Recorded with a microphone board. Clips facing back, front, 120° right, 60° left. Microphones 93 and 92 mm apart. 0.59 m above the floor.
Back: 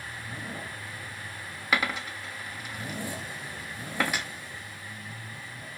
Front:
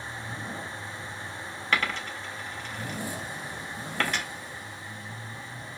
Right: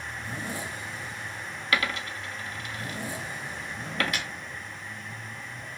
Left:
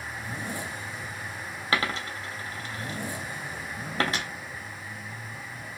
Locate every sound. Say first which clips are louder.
1.7 s a dropped coin: even, left 1 dB; 105° left, 0.5 m